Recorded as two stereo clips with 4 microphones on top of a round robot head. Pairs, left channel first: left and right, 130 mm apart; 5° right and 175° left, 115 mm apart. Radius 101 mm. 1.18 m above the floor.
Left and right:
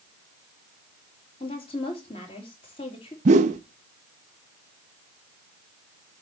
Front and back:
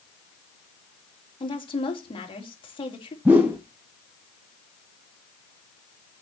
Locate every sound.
1.4 s a woman speaking: 35° left, 2.5 m
3.2 s a whoosh: 105° right, 0.6 m